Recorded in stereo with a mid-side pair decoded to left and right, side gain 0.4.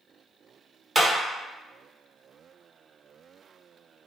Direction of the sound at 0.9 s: 15° right.